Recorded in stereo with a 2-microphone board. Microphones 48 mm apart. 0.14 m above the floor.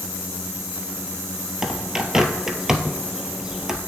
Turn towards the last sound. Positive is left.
turn(degrees=-10)  # may be behind; listen again after turning